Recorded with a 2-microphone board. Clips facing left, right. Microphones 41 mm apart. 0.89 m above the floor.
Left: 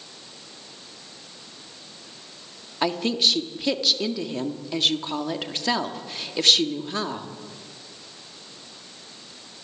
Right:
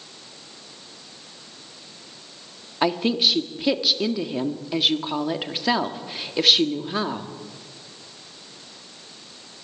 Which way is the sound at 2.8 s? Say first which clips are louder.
Right 2 dB; 10° right (ahead or behind).